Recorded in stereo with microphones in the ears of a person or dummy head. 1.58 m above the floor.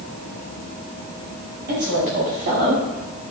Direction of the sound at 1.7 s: 50° right (ahead or behind).